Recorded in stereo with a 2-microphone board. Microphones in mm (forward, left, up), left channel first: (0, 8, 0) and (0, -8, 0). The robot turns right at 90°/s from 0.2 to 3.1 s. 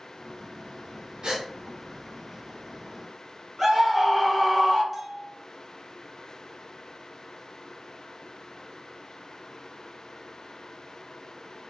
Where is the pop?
No pop in this recording.